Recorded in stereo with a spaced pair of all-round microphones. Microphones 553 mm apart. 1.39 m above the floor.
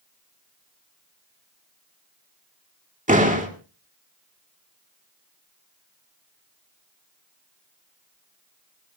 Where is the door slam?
15° right (ahead or behind), 2.5 m.